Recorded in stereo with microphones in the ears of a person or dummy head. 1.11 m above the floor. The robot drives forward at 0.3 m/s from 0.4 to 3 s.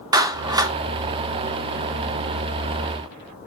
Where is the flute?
No flute in this recording.